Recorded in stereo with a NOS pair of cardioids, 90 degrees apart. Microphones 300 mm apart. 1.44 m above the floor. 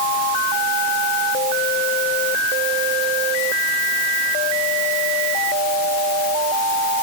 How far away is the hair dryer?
I don't hear a hair dryer.